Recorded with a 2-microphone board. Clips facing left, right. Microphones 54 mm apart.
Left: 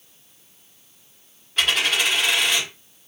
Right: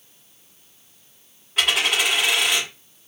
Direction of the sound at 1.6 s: 10° right (ahead or behind).